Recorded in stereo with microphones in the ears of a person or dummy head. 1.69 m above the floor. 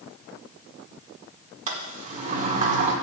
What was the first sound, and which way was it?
A sliding door, 45° right (ahead or behind).